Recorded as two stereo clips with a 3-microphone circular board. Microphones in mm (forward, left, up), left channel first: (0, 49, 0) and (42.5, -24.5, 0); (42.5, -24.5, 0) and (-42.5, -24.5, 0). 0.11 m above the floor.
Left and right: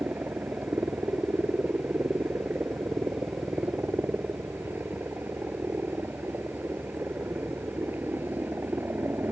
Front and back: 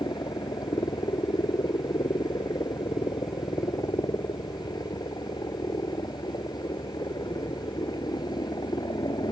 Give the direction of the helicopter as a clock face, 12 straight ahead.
12 o'clock.